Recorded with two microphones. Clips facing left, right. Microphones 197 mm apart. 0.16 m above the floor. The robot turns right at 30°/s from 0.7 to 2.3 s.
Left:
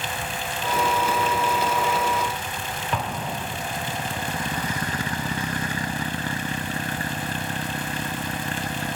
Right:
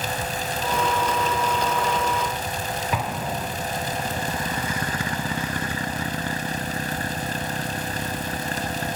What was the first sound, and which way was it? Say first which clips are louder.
An explosion: left 1 dB; 5° right (ahead or behind).